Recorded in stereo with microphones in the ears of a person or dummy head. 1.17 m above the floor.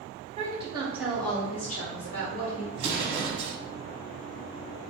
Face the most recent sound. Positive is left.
turn(degrees=-30)  # may be behind; listen again after turning